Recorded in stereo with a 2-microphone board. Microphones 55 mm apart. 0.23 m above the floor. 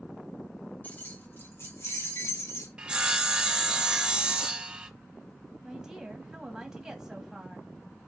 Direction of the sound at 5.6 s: 10° right (ahead or behind).